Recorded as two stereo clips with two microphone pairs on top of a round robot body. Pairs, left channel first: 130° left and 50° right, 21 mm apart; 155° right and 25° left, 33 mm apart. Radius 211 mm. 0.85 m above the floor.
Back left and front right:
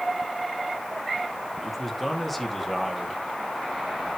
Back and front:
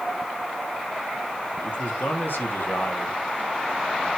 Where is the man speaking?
150° right, 2.5 m.